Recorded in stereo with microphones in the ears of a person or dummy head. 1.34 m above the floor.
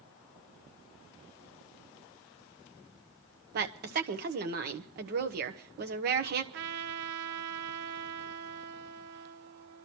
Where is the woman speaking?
50° right (ahead or behind), 1.0 m.